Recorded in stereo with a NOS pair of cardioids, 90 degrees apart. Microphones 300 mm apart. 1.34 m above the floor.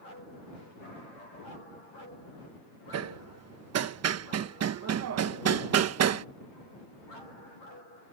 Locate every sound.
2.9 s hammering: 55° right